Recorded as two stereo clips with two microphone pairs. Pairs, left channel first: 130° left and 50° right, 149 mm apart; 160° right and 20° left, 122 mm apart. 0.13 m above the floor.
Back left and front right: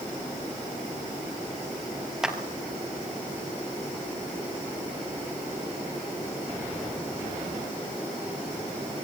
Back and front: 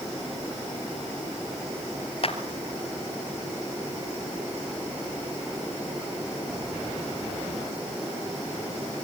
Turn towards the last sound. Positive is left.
turn(degrees=-135)